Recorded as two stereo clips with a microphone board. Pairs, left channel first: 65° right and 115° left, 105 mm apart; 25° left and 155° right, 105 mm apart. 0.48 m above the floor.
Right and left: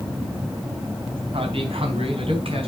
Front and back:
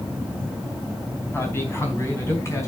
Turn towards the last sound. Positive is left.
turn(degrees=85)